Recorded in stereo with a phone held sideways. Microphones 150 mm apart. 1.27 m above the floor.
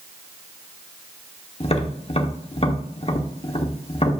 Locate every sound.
1.6 s tapping: 45° left (ahead or behind), 1.0 m